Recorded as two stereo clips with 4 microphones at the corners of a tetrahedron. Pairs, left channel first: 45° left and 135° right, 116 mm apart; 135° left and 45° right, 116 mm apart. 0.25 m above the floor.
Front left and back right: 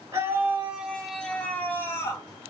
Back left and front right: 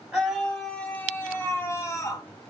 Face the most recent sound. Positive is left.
turn(degrees=95)